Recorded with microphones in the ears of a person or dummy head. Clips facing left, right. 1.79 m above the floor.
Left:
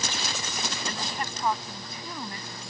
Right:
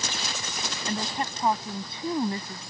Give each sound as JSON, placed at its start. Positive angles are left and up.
{"t": 0.9, "sound": "a woman speaking", "side_deg": -30}